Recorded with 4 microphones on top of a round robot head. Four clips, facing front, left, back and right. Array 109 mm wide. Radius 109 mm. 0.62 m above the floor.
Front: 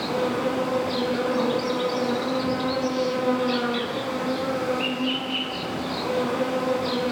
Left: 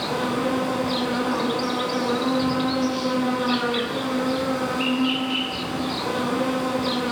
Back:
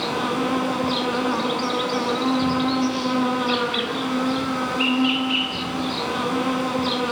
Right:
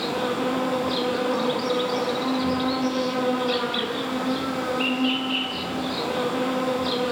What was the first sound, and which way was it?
An insect, 170° left.